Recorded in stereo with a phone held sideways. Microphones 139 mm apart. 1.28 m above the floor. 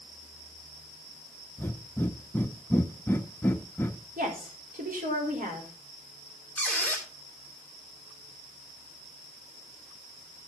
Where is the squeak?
10° left (ahead or behind), 2.5 m.